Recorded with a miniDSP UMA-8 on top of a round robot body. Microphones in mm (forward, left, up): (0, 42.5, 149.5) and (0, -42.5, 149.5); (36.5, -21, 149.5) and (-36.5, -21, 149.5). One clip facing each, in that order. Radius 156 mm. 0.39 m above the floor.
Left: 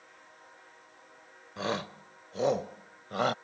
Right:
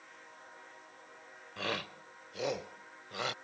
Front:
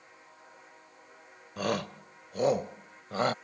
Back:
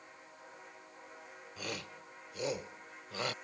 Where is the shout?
25° left; by 3.3 s 45° left.